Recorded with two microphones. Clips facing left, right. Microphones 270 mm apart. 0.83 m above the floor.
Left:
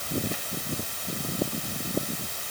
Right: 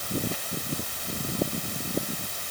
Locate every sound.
Only background noise.